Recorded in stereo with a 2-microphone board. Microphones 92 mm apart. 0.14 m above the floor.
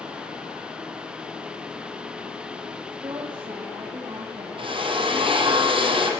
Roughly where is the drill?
Right.